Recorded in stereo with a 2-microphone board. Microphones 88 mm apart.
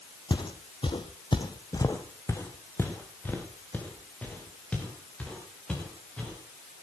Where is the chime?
No chime in this recording.